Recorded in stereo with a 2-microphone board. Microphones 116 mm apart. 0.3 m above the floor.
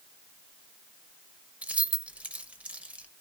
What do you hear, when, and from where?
1.6 s keys jangling: 10° right (ahead or behind), 0.7 m